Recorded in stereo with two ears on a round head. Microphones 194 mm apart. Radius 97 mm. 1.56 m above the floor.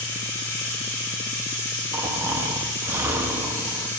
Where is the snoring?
10° right (ahead or behind), 1.2 m.